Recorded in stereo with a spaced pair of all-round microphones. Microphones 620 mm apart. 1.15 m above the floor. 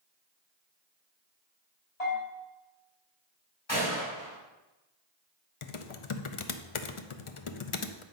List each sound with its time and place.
2.0 s a bell: 80° left, 4 m
3.7 s a gunshot: 45° left (ahead or behind), 4.5 m
5.6 s typing on a keyboard: 55° left (ahead or behind), 0.7 m